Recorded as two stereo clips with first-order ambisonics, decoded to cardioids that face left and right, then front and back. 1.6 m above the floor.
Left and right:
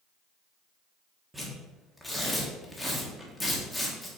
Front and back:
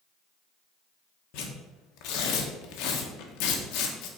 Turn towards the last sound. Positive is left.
turn(degrees=-5)